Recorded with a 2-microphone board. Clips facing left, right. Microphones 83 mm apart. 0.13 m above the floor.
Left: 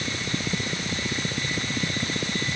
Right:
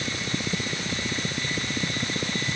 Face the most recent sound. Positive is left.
No sound to turn to.